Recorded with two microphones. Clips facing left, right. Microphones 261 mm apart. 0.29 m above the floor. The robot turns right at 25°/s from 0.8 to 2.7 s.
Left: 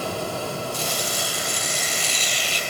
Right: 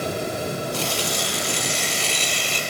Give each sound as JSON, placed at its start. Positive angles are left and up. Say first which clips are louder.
{"t": 0.7, "sound": "tearing paper", "louder": "right 3 dB", "azimuth_deg": -105, "distance_m": 1.8}